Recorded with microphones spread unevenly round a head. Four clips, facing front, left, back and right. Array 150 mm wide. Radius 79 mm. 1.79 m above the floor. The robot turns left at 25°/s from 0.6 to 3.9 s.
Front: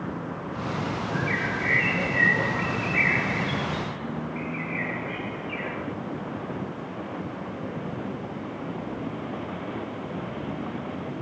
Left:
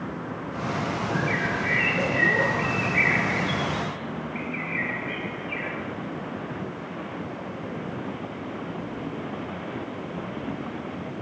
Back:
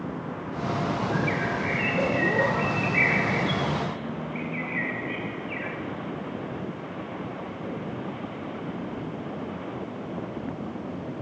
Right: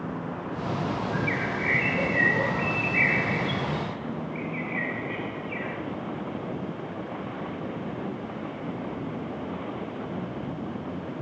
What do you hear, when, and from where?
1.1 s a bird: 95° right, 10 m; by 5.8 s 165° right, 10 m